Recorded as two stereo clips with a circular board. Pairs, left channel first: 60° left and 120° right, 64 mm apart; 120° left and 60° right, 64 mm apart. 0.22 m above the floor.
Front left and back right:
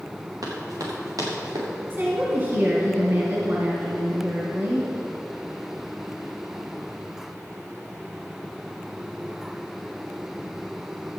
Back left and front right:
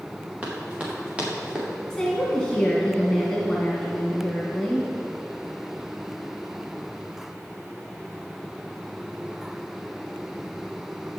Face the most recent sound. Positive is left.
turn(degrees=-160)